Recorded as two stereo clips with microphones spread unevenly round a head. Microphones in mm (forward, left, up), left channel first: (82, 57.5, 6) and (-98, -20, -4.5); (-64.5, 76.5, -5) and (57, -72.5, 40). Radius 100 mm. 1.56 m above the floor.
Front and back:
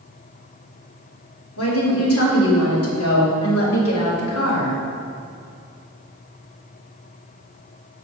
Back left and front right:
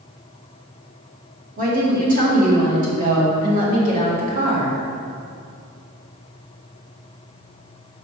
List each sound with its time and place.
1.6 s a woman speaking: straight ahead, 2.5 m